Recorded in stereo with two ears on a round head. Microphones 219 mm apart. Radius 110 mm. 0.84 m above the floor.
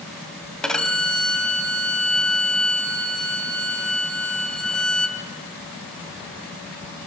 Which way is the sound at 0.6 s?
5° left (ahead or behind).